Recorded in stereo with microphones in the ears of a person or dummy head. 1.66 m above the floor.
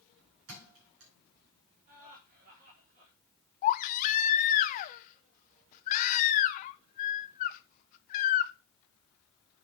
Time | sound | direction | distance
0.5 | a thud | 75° right (ahead or behind) | 6.5 m
1.9 | laughter | 50° right (ahead or behind) | 4 m
3.6 | a baby crying | 45° left (ahead or behind) | 0.7 m